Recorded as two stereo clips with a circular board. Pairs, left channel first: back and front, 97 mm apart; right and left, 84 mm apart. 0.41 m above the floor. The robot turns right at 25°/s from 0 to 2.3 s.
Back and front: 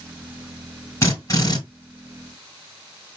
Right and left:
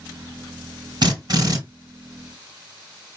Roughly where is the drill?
Behind left.